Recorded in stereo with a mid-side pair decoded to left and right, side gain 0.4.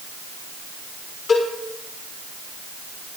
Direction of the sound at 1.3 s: 60° left.